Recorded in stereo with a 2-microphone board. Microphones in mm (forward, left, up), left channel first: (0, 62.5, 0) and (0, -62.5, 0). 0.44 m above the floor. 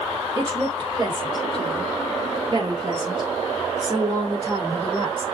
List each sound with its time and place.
0.3 s a woman speaking: 35° right (ahead or behind), 2.5 m; by 5.2 s 20° right (ahead or behind), 1.4 m